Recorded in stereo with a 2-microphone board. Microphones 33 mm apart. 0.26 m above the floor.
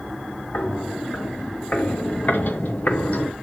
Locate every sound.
0.5 s footsteps: 60° left (ahead or behind), 4.5 m; by 3.3 s 50° left (ahead or behind), 1.7 m